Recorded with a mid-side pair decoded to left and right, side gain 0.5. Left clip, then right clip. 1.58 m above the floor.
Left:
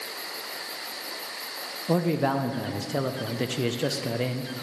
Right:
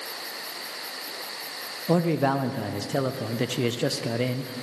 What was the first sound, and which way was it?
A man speaking, 10° right.